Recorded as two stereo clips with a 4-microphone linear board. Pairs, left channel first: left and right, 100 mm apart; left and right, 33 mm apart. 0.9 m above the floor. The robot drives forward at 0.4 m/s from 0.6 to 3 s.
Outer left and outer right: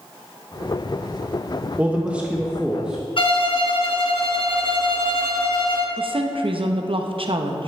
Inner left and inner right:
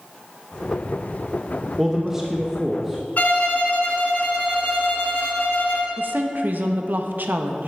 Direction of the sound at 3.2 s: 60° left (ahead or behind).